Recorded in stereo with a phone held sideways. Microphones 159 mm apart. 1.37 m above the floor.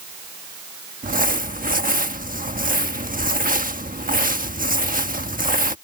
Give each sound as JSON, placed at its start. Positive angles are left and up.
{"t": 1.0, "sound": "crumpling", "side_deg": -60}